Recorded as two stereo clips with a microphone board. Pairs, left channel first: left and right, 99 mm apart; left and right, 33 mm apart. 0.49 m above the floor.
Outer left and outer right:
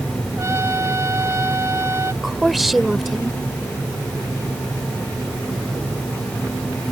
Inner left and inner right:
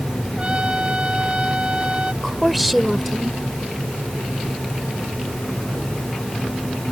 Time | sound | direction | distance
0.4 | a trumpet | 30° right (ahead or behind) | ?
2.2 | a woman speaking | centre (ahead or behind) | ?